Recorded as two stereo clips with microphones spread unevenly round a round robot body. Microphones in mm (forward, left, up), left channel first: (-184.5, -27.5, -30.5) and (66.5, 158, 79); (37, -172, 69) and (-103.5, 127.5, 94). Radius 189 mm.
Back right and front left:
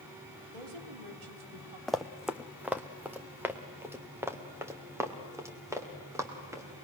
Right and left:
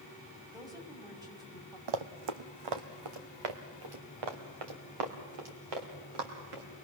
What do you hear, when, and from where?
0.5 s a woman speaking: 35° left, 3 m
1.9 s running footsteps: 120° left, 1.1 m; by 6.8 s 115° left, 5 m